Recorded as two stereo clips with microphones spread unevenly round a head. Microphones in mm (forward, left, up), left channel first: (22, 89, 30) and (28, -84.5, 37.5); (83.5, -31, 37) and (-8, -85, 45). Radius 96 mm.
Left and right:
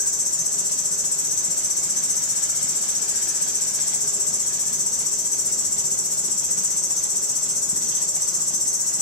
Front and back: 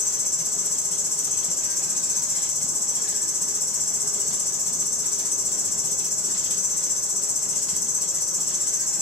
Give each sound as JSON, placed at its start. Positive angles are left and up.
{"t": 0.0, "sound": "an insect", "azimuth_deg": 50, "distance_m": 0.7}